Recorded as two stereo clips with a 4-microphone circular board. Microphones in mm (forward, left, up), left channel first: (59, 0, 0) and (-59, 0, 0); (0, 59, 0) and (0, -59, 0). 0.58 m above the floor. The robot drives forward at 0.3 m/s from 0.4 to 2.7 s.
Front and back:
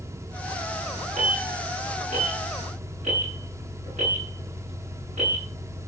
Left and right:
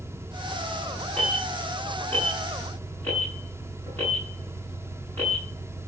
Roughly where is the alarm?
Behind.